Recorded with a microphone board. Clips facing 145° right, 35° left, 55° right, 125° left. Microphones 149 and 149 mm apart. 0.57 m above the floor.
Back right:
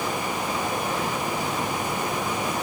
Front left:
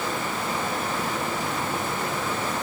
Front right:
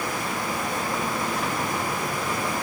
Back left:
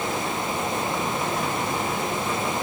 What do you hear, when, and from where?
Only background noise.